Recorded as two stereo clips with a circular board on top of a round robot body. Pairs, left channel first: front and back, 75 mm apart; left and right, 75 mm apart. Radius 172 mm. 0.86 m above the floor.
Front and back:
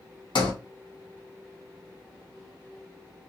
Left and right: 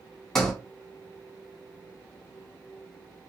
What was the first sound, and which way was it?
A sliding door, 5° left.